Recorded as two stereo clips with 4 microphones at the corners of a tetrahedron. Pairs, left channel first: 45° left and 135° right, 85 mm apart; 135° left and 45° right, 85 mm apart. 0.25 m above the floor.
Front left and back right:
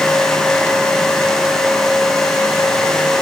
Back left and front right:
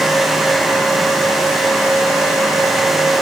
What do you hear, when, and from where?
Only background noise.